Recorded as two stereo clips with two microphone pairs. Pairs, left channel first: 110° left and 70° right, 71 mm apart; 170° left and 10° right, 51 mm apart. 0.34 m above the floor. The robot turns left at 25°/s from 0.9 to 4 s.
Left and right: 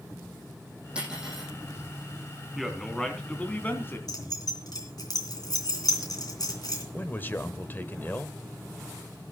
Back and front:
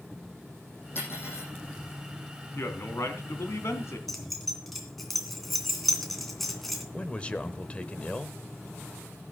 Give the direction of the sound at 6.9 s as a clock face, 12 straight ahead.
8 o'clock.